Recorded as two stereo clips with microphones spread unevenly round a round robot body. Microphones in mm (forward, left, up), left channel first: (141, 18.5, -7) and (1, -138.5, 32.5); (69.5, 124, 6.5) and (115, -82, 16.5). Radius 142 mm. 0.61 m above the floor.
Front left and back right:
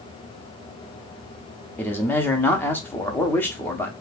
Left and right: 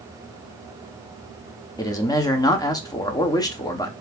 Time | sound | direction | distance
1.8 | a man speaking | 75° left | 0.8 m